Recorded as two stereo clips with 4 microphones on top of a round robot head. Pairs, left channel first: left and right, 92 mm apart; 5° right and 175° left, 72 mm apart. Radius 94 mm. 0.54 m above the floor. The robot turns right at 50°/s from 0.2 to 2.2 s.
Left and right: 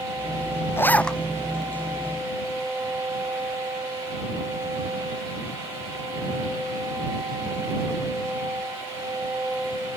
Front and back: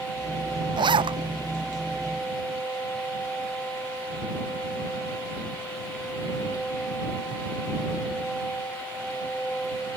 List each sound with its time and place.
0.8 s a zipper: 155° left; by 1.2 s 175° left